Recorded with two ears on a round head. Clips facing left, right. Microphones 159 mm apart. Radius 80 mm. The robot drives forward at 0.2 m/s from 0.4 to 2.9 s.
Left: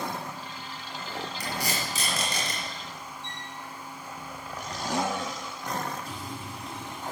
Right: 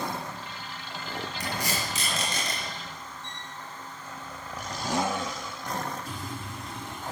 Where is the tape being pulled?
85° left, 4.5 m.